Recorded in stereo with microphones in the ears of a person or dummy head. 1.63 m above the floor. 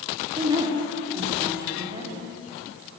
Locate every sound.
0.4 s a woman speaking: 25° right (ahead or behind), 4 m